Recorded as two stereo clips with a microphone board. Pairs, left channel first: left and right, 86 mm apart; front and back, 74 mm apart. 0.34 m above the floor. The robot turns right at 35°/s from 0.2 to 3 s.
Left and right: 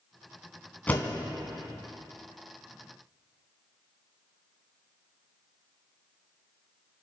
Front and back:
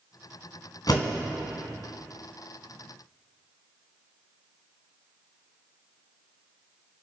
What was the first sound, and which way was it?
A door slam, 20° left.